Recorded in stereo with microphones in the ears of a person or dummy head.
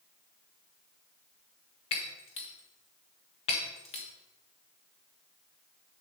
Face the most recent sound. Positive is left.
turn(degrees=35)  # may be behind; listen again after turning